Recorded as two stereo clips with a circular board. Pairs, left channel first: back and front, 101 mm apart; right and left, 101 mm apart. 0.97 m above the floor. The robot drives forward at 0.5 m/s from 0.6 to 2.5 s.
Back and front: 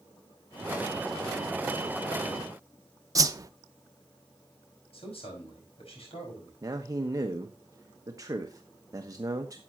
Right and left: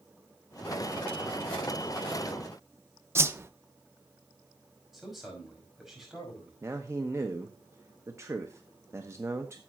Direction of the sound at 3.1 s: 35° left.